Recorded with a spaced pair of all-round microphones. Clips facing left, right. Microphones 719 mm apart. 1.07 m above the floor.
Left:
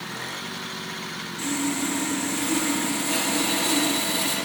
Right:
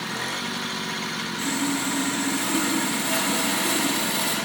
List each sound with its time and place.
1.4 s sawing: 75° right (ahead or behind), 3 m